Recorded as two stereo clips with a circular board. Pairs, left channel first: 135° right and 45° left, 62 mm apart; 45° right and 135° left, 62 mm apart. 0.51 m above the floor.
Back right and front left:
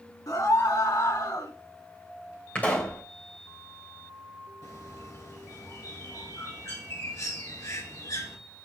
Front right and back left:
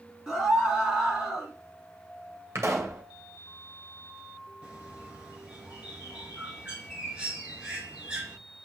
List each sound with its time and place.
0.3 s a scream: 145° right, 4 m
2.5 s a pop: 165° left, 2.5 m
4.6 s a bird: 155° right, 3.5 m